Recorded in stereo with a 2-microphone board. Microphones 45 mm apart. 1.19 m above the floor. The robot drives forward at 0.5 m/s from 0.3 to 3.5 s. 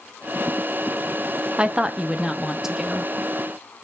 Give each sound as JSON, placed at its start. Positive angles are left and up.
{"t": 1.6, "sound": "a woman speaking", "side_deg": -25, "distance_m": 0.6}